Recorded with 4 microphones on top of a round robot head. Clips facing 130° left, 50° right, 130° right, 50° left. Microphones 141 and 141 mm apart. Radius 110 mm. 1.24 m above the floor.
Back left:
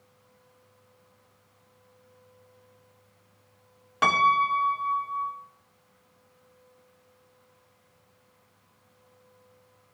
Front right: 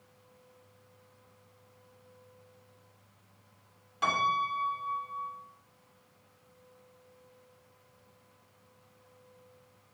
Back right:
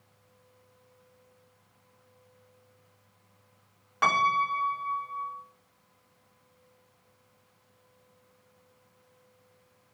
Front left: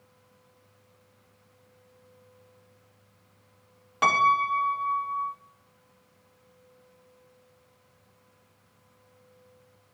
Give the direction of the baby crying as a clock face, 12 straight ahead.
No baby crying in this recording.